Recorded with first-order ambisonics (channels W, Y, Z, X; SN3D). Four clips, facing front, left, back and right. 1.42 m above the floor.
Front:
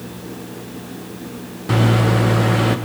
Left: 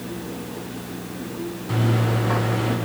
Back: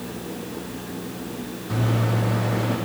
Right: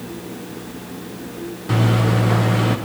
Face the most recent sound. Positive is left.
turn(degrees=-20)